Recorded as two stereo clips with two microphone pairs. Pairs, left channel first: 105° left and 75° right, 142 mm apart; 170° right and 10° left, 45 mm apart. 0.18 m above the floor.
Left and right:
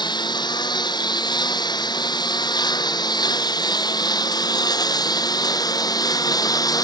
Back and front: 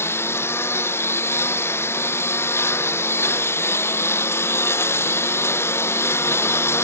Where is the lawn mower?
165° left; by 6.8 s 170° left.